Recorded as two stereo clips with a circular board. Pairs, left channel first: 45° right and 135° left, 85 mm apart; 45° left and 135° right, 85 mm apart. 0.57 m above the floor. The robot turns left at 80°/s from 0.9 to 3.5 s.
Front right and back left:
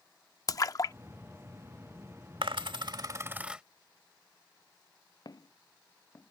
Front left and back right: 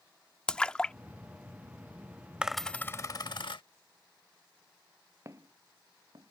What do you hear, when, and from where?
0.5 s a splash: 30° right; by 2.5 s 160° right
2.4 s a dropped coin: 145° left; by 3.6 s 60° left
5.2 s footsteps: 80° right; by 6.3 s 105° right